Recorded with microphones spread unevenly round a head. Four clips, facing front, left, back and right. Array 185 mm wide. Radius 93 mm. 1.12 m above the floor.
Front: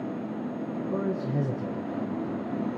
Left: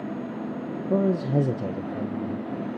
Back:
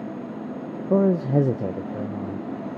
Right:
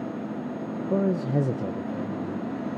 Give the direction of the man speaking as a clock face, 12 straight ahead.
6 o'clock.